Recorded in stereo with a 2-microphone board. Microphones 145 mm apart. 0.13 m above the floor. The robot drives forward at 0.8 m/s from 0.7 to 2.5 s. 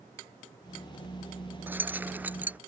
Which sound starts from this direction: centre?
Keys jangling, at 1.7 s.